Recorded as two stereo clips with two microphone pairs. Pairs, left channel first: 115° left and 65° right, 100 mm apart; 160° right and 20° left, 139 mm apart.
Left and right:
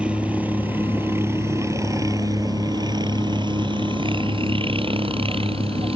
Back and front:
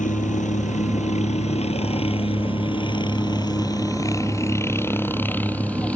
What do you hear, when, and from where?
0.0 s a helicopter: 140° right; by 6.0 s 80° right